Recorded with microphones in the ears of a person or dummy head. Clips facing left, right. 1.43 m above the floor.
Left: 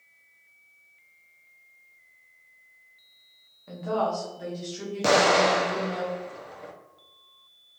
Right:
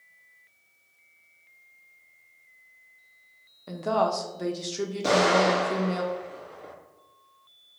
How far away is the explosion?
About 0.9 m.